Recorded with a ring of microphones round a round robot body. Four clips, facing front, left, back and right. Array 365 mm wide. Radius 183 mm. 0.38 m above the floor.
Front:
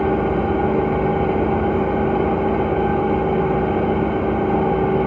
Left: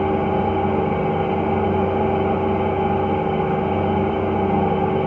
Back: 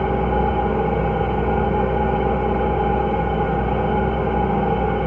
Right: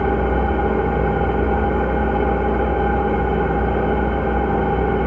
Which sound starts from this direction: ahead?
An engine running, at 0.0 s.